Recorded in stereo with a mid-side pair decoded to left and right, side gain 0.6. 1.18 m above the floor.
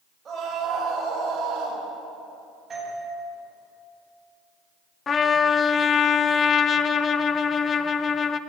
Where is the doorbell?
30° right, 9.5 m.